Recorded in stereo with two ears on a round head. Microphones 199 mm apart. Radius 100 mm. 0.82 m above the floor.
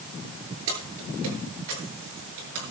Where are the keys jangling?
70° right (ahead or behind), 9 m; by 2.7 s 65° right (ahead or behind), 8 m.